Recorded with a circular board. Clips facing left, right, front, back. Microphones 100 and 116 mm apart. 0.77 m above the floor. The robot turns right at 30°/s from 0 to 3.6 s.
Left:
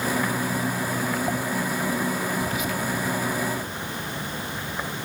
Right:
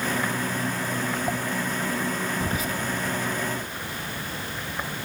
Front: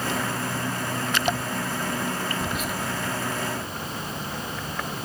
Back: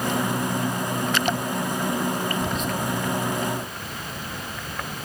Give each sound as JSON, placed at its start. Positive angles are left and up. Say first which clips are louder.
{"t": 2.4, "sound": "whispering", "louder": "left 1 dB, back 3 dB", "azimuth_deg": -85, "distance_m": 0.5}